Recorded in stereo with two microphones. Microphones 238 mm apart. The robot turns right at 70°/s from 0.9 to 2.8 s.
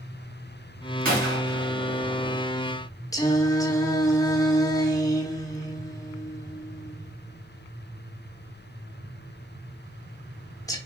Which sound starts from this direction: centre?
Singing, at 3.1 s.